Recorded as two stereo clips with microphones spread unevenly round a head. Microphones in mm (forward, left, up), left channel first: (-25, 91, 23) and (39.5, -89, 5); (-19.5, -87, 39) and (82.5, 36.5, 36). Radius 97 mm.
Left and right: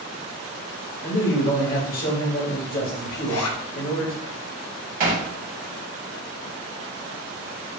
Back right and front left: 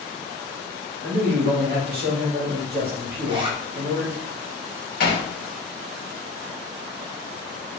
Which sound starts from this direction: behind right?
Hammering, at 5.0 s.